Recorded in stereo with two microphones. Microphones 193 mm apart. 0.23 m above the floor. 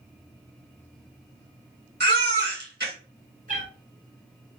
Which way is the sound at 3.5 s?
45° right (ahead or behind).